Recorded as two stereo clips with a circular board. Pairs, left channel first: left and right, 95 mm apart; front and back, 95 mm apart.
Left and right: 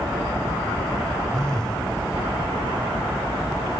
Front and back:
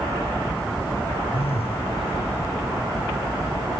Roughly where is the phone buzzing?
Ahead.